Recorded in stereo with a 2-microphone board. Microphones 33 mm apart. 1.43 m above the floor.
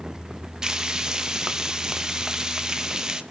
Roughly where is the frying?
Centre.